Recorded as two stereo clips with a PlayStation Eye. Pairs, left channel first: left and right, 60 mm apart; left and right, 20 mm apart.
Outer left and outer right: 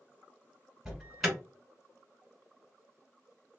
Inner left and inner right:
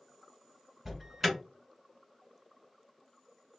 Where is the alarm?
5° right (ahead or behind), 1.2 m.